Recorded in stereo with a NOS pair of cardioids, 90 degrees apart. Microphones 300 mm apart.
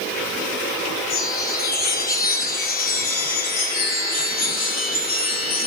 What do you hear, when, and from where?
1.1 s a chime: 30° left, 1.5 m